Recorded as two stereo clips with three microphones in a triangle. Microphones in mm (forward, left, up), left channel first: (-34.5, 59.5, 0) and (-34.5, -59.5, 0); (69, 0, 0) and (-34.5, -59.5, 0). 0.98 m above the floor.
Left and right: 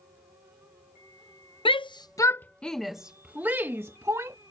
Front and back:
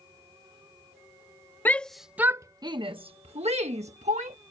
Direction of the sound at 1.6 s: 100° left.